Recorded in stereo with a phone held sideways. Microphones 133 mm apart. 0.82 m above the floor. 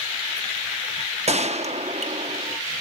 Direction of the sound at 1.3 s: 55° right (ahead or behind).